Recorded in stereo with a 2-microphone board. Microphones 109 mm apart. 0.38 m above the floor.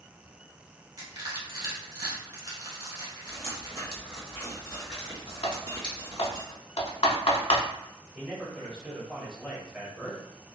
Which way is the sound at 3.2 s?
55° right (ahead or behind).